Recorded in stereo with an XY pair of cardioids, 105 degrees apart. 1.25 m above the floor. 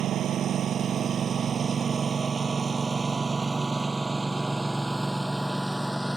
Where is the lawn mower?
65° right; by 6.2 s 5° right.